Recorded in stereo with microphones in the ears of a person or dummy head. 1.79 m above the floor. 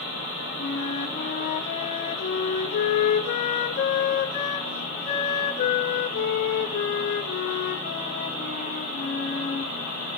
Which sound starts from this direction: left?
A flute, at 0.6 s.